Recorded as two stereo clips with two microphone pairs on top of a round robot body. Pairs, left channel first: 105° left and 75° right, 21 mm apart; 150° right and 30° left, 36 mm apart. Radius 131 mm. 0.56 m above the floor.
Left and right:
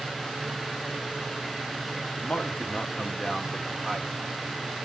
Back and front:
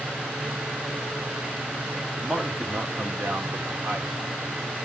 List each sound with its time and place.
2.2 s a man speaking: 90° left, 2 m; by 4.1 s 20° left, 3.5 m